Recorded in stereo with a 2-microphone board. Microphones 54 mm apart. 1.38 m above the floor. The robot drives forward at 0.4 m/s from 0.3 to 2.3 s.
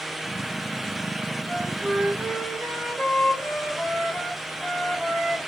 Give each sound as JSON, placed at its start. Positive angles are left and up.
{"t": 1.5, "sound": "a flute", "side_deg": 0, "distance_m": 1.1}